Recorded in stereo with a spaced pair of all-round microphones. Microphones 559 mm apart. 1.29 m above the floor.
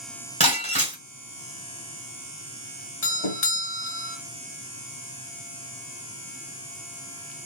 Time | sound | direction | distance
0.4 | breaking glass | 10° left (ahead or behind) | 2 m
3.0 | a doorbell | 55° left (ahead or behind) | 1.3 m